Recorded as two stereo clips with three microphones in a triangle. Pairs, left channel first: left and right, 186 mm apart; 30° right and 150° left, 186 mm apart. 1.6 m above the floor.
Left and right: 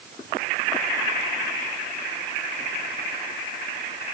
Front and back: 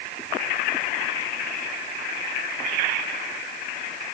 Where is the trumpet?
I don't hear a trumpet.